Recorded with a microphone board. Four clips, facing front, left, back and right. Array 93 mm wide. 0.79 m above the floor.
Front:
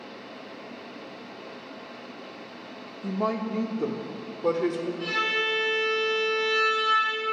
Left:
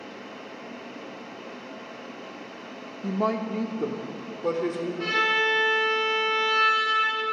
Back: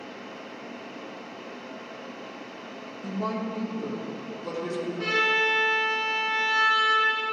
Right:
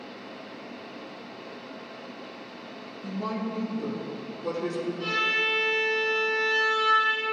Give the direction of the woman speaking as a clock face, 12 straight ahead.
10 o'clock.